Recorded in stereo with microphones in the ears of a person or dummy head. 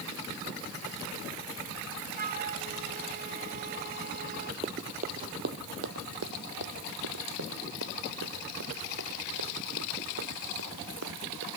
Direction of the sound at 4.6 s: 25° right (ahead or behind).